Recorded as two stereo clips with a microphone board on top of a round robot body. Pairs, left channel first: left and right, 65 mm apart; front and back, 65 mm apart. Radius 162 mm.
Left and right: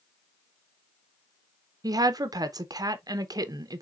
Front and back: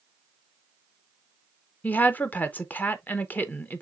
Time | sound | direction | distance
1.8 | a woman speaking | 65° right | 0.7 m